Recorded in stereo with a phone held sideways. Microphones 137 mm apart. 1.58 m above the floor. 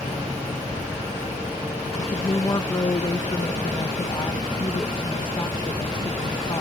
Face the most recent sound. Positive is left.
turn(degrees=35)  # may be behind; listen again after turning